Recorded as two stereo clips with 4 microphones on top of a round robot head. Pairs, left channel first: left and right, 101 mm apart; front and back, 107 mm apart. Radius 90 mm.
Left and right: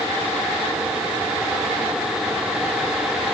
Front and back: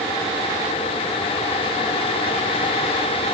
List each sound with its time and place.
Only background noise.